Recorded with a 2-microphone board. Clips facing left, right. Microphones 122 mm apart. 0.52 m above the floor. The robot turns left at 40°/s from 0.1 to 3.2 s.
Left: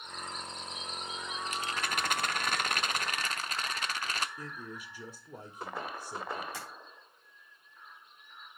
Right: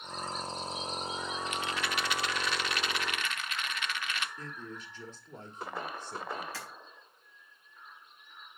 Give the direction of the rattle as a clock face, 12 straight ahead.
8 o'clock.